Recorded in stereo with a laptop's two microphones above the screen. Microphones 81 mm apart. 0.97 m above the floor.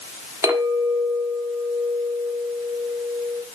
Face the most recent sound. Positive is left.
turn(degrees=-45)  # may be behind; listen again after turning